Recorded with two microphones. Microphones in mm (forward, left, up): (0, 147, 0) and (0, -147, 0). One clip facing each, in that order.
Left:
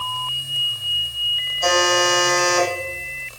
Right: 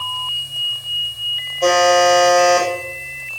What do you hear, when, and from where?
1.6 s a buzzer: 75° right (ahead or behind), 4 m